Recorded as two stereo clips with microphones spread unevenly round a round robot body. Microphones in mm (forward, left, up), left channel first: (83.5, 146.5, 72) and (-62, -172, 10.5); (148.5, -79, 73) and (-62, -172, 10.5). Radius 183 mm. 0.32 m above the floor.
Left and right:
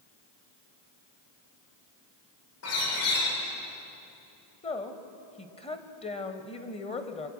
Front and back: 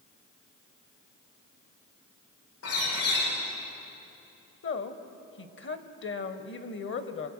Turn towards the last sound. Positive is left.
turn(degrees=-10)